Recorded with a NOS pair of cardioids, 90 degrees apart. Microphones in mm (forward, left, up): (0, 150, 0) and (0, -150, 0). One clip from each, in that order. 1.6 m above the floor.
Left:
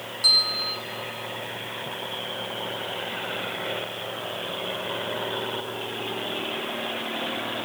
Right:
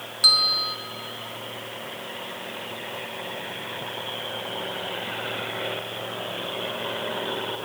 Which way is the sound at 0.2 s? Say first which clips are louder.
Right 2 dB; 50° right.